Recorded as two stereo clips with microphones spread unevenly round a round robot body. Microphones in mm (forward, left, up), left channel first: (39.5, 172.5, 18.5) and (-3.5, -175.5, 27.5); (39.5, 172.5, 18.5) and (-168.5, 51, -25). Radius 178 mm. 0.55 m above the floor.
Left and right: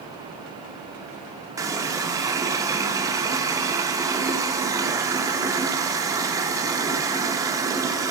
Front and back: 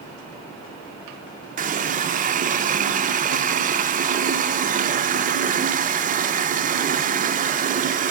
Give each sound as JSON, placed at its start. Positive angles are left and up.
{"t": 1.6, "sound": "a running tap", "azimuth_deg": -175, "distance_m": 0.8}